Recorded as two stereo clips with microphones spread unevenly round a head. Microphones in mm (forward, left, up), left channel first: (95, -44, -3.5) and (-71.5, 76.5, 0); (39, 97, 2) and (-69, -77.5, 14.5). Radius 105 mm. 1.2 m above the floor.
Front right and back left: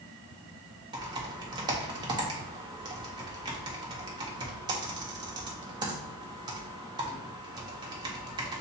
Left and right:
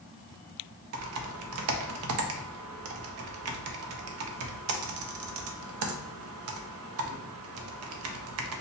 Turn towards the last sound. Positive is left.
turn(degrees=-145)